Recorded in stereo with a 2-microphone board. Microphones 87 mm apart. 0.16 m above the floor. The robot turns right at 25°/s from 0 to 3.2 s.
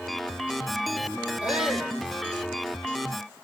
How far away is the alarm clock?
I don't hear an alarm clock.